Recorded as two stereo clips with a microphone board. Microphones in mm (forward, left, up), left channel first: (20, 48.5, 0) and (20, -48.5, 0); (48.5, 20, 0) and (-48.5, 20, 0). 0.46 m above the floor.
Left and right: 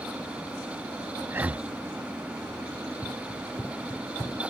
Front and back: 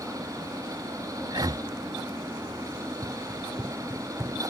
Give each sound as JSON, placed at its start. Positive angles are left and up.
{"t": 1.3, "sound": "breathing", "azimuth_deg": -150}
{"t": 2.7, "sound": "running footsteps", "azimuth_deg": 115}